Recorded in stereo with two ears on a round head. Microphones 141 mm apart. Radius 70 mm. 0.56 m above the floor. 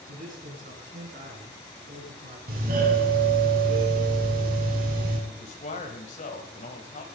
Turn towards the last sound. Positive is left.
turn(degrees=45)  # may be behind; listen again after turning